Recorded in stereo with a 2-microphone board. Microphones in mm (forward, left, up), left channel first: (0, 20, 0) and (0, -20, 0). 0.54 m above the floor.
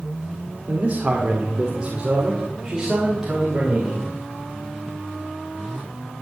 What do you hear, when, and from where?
0.7 s a man speaking: 35° right (ahead or behind), 1.6 m; by 4.0 s 10° right (ahead or behind), 3 m